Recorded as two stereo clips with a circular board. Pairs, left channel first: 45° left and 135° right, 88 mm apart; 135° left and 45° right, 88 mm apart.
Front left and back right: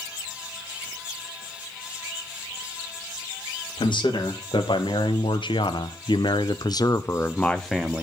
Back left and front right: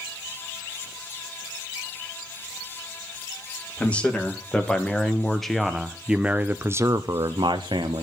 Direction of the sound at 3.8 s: 60° left.